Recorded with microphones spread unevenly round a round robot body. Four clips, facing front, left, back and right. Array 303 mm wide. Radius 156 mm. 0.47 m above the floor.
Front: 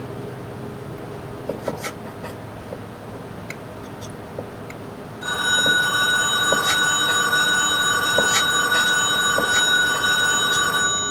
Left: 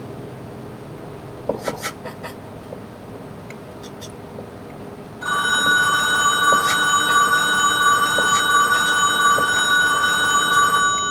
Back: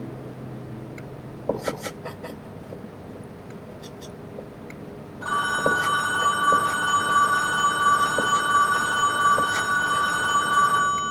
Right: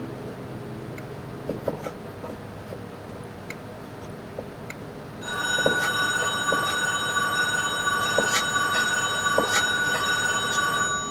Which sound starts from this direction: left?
A phone ringing, at 5.2 s.